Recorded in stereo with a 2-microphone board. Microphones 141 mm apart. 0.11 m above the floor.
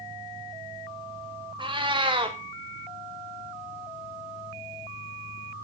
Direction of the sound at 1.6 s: 35° right (ahead or behind).